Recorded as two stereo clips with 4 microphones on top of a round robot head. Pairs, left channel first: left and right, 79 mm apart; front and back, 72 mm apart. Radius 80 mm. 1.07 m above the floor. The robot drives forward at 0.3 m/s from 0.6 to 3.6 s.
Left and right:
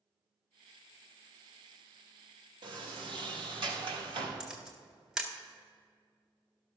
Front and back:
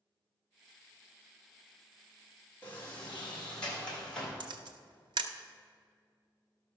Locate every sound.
2.6 s a sliding door: 70° right, 1.6 m; by 4.4 s 80° right, 1.5 m
4.4 s a camera shutter: 175° right, 0.8 m